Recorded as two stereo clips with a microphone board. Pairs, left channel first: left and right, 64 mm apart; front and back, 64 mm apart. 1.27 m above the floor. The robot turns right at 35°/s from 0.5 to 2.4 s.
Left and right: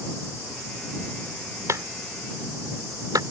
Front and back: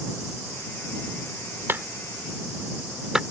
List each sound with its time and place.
1.7 s a clap: 125° right; by 3.2 s 100° right